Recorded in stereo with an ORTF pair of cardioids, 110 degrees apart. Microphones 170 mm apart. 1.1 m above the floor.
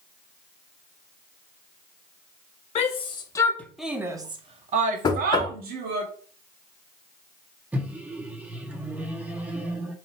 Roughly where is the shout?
Ahead left.